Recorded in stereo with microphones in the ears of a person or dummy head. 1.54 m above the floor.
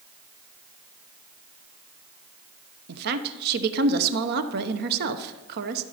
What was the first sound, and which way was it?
A woman speaking, 60° right (ahead or behind).